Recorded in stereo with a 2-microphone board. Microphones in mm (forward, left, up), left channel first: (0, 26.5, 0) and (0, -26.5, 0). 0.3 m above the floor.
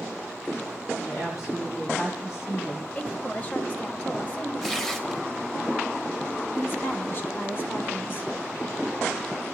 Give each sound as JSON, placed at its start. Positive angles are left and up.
{"t": 1.0, "sound": "a woman speaking", "side_deg": 65, "distance_m": 7.0}
{"t": 3.0, "sound": "a woman speaking", "side_deg": 25, "distance_m": 1.5}
{"t": 4.6, "sound": "tearing paper", "side_deg": 10, "distance_m": 1.4}
{"t": 6.5, "sound": "a woman speaking", "side_deg": 45, "distance_m": 1.9}